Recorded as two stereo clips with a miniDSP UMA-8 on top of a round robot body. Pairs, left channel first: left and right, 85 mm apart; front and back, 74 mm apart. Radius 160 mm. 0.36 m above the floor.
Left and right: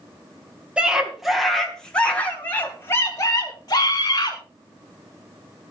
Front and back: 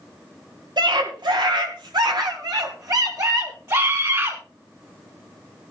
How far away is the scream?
About 3.5 m.